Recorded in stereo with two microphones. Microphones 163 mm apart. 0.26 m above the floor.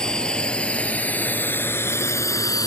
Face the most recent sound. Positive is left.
turn(degrees=20)  # may be behind; listen again after turning